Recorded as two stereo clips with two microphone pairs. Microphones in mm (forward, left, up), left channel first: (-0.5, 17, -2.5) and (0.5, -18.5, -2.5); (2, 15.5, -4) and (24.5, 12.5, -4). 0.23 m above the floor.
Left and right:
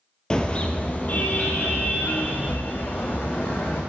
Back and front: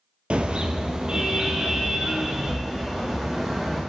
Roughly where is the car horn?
Ahead left.